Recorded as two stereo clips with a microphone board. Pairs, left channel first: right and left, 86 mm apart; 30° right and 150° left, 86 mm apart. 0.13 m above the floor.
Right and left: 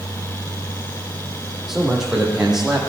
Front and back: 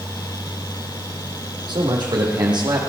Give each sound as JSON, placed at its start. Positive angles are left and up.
{"t": 1.7, "sound": "a man speaking", "azimuth_deg": 175, "distance_m": 5.0}